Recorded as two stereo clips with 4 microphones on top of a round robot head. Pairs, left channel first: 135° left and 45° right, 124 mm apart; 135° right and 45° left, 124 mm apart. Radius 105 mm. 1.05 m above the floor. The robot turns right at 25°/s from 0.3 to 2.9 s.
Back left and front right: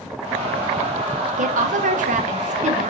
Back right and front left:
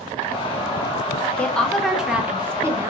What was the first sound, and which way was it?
A woman speaking, 55° right.